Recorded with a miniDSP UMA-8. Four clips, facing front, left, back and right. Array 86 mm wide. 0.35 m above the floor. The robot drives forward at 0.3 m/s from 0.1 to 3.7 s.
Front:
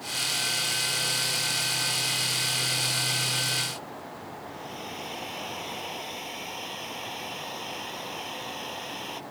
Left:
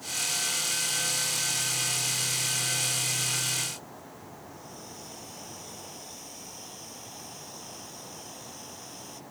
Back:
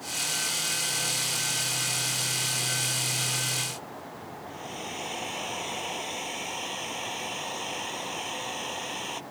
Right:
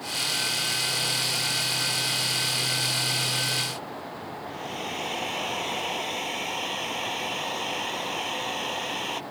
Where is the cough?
No cough in this recording.